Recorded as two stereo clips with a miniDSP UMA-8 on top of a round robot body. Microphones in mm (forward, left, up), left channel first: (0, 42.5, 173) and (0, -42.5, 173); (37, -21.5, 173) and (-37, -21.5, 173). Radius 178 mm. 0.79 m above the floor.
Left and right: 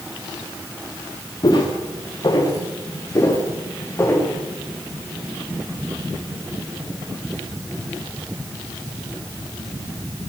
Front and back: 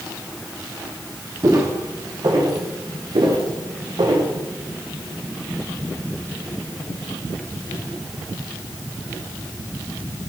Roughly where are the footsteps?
Behind left.